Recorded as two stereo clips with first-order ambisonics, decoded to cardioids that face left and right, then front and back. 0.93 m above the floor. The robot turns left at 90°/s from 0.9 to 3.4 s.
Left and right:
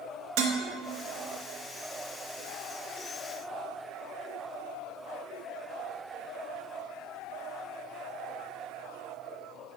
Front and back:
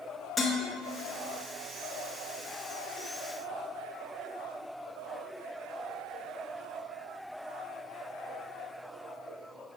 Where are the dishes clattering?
85° right, 1.0 m.